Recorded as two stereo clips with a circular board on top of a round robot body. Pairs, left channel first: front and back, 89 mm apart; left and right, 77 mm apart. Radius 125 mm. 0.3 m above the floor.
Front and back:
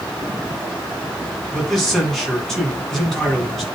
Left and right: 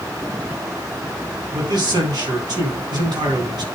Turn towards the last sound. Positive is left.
turn(degrees=-85)